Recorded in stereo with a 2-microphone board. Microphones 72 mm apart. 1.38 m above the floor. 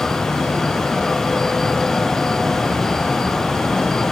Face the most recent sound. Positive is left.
No sound to turn to.